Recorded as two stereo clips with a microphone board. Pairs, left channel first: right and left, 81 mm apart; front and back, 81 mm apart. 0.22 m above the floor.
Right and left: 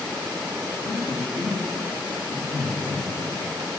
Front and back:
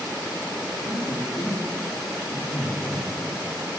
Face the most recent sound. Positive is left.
turn(degrees=-70)